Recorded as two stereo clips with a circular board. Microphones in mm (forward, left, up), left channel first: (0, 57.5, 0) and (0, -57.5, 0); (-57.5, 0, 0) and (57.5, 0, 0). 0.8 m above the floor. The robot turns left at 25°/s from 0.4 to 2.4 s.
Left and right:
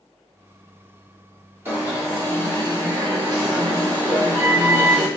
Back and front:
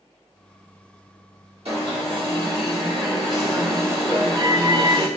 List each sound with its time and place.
1.6 s an alarm: 20° right, 1.9 m; by 5.1 s 40° right, 1.9 m